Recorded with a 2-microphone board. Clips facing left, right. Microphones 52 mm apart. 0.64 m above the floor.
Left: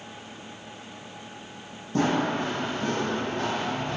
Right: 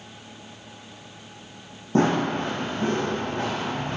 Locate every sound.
1.9 s running footsteps: 40° right (ahead or behind), 1.3 m; by 4.0 s 50° right (ahead or behind), 3 m